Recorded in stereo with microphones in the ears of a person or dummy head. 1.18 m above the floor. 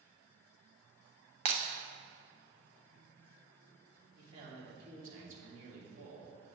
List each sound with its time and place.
1.4 s breaking glass: 40° right (ahead or behind), 0.9 m
4.2 s a man speaking: 55° right (ahead or behind), 3 m